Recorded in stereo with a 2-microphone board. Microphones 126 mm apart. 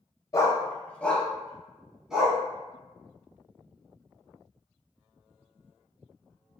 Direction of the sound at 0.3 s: 30° left (ahead or behind).